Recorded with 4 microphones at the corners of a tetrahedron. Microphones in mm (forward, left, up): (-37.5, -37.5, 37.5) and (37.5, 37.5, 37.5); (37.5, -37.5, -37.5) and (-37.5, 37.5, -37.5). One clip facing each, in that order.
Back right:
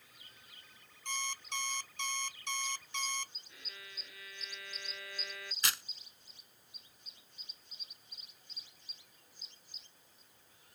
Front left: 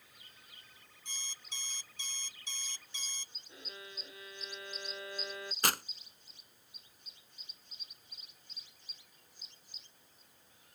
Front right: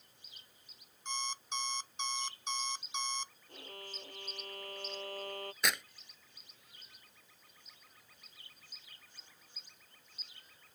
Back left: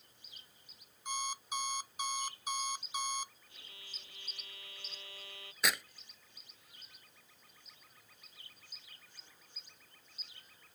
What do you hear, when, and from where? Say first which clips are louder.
1.1 s an alarm clock: back right 12 dB, back left 1 dB; 145° right
3.5 s a violin: front left 4 dB, front right 10 dB; 15° right
5.6 s tearing paper: front left 6 dB, back left 1 dB; 45° left